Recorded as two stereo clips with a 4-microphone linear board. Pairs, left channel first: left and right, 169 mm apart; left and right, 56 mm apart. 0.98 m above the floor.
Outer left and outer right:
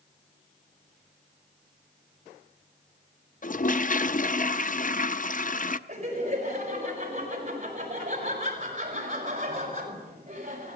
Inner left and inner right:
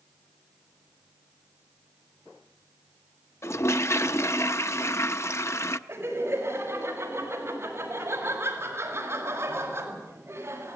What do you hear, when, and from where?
3.4 s a toilet flushing: 50° left (ahead or behind), 0.6 m
5.9 s laughter: 40° right (ahead or behind), 6.5 m